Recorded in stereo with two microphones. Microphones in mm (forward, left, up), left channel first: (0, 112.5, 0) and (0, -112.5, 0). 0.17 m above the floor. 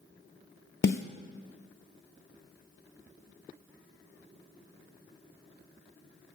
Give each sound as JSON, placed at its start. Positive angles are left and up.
{"t": 0.8, "sound": "a snare drum", "side_deg": 55, "distance_m": 0.8}